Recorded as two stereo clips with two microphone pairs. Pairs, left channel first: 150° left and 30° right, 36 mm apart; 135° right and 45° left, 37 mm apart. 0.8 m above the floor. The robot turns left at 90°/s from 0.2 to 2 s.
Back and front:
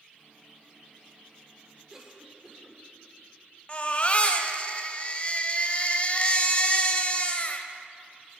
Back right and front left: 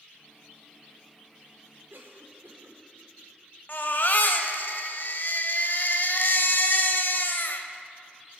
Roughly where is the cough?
Ahead left.